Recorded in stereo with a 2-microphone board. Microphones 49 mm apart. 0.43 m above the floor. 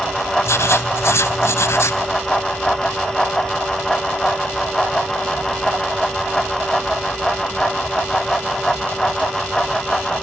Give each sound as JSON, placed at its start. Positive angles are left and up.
{"t": 0.4, "sound": "writing", "side_deg": 60, "distance_m": 0.8}